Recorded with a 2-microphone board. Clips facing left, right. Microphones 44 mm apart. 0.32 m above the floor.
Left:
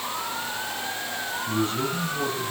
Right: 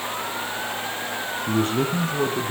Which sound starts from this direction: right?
A man speaking, at 1.5 s.